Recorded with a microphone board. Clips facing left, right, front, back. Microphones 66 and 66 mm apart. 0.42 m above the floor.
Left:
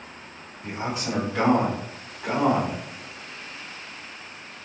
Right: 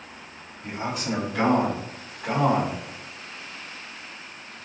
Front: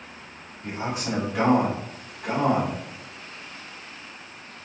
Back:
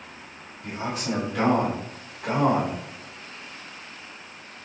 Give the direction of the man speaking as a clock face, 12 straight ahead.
11 o'clock.